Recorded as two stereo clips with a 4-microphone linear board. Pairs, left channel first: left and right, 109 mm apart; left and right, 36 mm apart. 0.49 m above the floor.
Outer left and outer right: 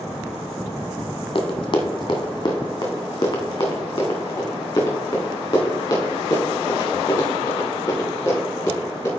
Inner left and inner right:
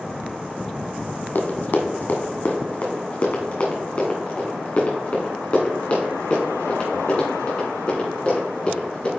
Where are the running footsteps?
50° left (ahead or behind), 1.1 m; by 9.1 s 25° left (ahead or behind), 5 m.